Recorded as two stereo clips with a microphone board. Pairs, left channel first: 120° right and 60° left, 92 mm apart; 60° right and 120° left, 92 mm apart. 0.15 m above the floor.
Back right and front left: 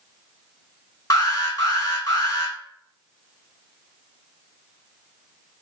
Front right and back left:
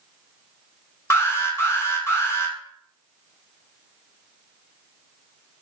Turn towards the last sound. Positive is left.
turn(degrees=-105)